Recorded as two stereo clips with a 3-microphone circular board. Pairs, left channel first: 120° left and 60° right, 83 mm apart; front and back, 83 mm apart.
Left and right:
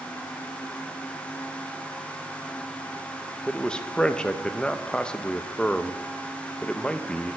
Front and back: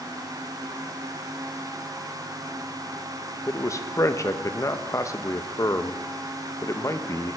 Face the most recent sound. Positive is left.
turn(degrees=45)